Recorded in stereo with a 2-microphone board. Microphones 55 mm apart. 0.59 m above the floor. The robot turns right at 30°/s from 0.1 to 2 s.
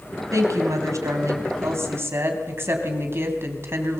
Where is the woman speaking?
105° right, 3.5 m; by 4.0 s 55° right, 3.5 m.